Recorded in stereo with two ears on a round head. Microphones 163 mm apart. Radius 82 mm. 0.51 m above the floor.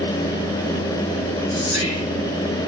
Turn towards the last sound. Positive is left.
turn(degrees=45)  # may be behind; listen again after turning